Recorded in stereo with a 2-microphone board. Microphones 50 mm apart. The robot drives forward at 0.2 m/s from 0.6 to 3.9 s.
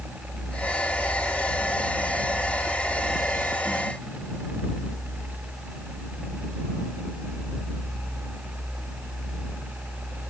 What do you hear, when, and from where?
Only background noise.